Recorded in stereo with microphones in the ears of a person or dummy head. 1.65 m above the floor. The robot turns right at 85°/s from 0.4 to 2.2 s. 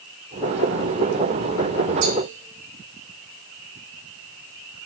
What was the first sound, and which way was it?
A cowbell, 85° right.